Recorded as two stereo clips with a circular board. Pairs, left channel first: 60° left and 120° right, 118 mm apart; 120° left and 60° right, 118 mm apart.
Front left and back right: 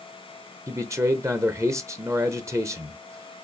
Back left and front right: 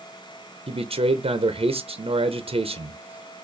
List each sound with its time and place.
0.7 s a man speaking: 60° right, 0.7 m